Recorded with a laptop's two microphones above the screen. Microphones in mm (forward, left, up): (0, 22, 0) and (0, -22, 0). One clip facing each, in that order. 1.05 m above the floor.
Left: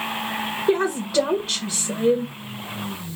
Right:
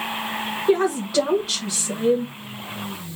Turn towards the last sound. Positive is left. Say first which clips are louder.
# right 2 dB
turn(degrees=0)  # may be behind; listen again after turning